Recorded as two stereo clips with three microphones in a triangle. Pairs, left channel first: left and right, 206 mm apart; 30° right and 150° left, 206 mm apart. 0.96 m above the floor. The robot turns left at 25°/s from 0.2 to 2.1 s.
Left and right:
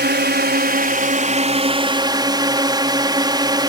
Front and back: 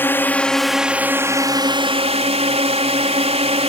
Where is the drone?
110° right; by 3.7 s 155° right.